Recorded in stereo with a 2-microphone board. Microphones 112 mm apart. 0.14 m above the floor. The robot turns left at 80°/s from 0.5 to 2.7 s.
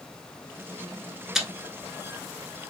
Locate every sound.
1.4 s chewing: 5° right (ahead or behind), 0.7 m; by 1.5 s 10° right (ahead or behind), 0.7 m